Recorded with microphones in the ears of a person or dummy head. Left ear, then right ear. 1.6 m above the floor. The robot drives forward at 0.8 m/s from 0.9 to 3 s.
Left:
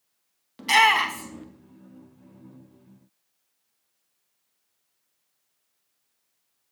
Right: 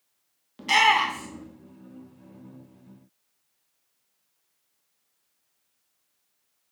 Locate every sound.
0.6 s a shout: 10° left (ahead or behind), 0.8 m; by 1.4 s 15° left (ahead or behind), 0.5 m